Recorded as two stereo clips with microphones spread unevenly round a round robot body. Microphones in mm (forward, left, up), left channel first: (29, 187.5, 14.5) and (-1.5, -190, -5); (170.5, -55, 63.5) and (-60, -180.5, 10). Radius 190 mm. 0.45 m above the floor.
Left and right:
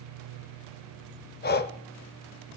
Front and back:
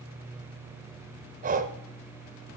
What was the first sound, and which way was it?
Breathing, 150° left.